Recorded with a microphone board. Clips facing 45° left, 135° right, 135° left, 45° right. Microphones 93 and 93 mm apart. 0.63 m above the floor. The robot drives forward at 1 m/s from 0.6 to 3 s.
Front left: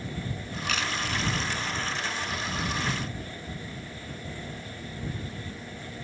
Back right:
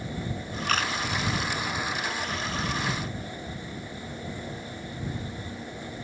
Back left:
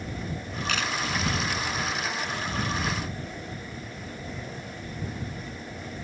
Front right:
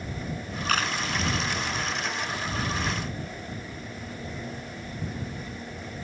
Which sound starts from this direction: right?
A camera shutter, at 0.7 s.